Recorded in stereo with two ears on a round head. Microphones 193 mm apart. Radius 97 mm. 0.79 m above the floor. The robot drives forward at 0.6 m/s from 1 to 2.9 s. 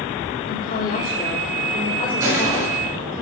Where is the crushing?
15° right (ahead or behind), 7.5 m.